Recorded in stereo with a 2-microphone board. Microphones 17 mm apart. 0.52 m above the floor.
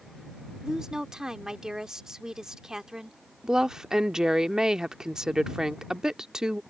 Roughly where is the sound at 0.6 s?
Right.